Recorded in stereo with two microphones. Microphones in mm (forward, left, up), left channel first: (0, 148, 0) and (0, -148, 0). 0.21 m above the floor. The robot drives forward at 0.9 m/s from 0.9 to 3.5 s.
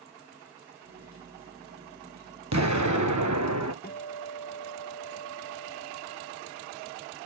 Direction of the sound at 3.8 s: 35° left (ahead or behind).